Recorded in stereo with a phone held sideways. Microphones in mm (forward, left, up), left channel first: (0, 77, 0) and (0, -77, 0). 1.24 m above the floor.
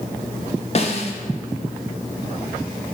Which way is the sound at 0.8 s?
40° left (ahead or behind).